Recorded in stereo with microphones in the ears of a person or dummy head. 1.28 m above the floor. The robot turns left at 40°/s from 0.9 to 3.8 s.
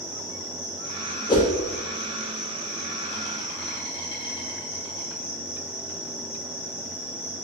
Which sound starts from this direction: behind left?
An insect, at 0.0 s.